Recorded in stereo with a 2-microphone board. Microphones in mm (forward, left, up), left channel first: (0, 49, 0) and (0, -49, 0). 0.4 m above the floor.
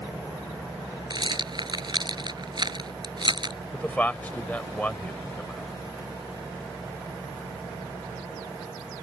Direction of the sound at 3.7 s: 15° left (ahead or behind).